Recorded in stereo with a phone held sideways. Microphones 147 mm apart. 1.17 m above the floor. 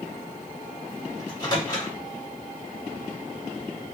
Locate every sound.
1.2 s a microwave: 25° left (ahead or behind), 2 m